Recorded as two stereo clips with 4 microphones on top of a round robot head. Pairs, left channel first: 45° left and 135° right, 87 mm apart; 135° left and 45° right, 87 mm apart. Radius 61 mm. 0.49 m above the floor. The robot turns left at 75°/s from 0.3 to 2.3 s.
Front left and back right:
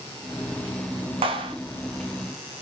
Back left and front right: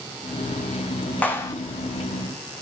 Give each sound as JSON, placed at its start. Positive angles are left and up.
{"t": 1.2, "sound": "a clap", "azimuth_deg": -150, "distance_m": 5.0}